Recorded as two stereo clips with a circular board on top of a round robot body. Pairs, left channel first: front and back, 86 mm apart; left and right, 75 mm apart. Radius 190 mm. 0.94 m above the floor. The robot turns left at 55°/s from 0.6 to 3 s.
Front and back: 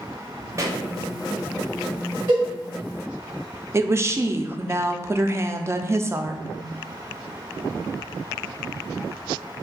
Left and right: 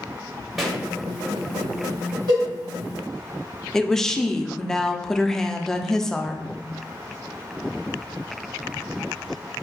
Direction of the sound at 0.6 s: Straight behind.